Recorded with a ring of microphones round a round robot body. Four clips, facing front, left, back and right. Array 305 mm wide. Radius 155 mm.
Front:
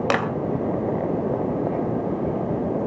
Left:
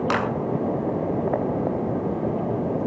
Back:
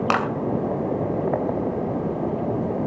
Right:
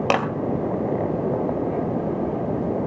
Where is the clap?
55° right, 2.5 m.